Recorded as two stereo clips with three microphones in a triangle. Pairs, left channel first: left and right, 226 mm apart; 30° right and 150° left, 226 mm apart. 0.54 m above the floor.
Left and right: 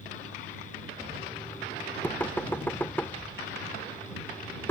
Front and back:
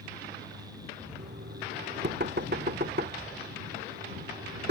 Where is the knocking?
170° left.